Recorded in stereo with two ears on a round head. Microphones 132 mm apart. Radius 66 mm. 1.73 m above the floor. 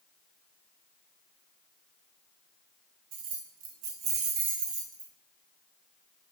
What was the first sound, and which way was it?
Keys jangling, 65° right (ahead or behind).